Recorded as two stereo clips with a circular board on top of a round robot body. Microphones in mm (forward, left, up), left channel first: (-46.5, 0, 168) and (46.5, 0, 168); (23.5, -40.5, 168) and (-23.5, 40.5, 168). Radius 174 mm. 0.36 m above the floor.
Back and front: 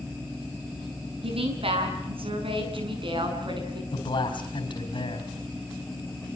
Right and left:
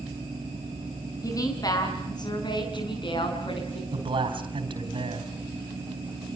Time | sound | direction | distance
1.2 | a woman speaking | 10° right | 6 m
3.9 | a man speaking | 150° left | 4 m